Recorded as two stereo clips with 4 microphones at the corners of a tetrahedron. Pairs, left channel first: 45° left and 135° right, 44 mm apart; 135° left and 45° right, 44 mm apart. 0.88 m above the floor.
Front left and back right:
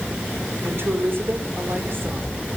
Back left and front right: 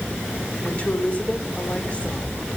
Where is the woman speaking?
165° right, 3 m.